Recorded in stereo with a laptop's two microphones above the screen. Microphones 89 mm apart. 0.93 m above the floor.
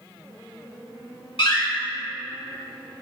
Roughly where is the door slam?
Left.